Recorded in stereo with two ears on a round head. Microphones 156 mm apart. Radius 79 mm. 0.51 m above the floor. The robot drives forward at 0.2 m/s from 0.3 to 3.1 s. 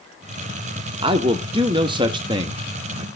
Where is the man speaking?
30° right (ahead or behind), 0.9 m; by 3.1 s 25° right (ahead or behind), 1.0 m.